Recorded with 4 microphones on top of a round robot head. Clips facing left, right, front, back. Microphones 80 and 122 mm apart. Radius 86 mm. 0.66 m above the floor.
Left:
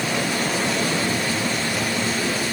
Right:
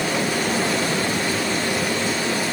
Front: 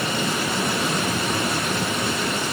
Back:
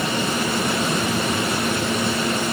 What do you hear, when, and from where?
Only background noise.